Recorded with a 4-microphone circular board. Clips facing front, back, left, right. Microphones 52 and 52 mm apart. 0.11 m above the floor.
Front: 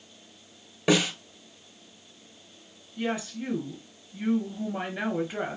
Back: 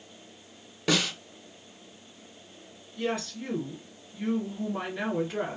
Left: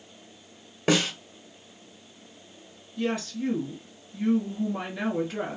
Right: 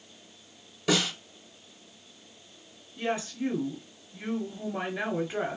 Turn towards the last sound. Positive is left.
turn(degrees=-50)